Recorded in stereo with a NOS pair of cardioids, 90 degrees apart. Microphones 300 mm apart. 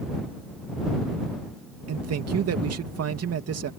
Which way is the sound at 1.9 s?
55° right.